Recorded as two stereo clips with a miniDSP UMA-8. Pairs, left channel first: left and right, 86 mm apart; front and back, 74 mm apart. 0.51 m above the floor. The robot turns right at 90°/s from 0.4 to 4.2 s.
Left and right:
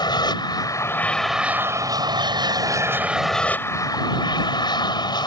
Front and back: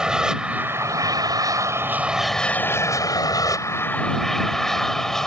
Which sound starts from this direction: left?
An aircraft, at 0.0 s.